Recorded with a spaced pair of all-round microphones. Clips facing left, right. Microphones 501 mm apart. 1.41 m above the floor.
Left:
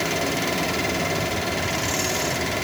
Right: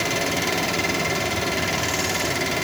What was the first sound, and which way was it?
Only background noise.